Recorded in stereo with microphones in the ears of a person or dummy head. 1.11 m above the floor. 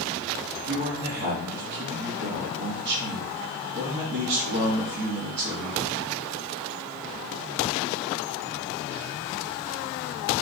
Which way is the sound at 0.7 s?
60° right (ahead or behind).